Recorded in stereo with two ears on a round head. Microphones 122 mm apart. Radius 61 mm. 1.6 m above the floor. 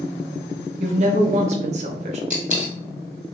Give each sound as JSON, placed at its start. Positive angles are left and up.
{"t": 0.8, "sound": "a woman speaking", "side_deg": -55, "distance_m": 0.8}
{"t": 2.3, "sound": "a dropped coin", "side_deg": -10, "distance_m": 1.9}